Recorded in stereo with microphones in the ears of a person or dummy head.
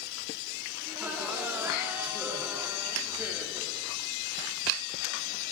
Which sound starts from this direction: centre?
Laughter, at 0.9 s.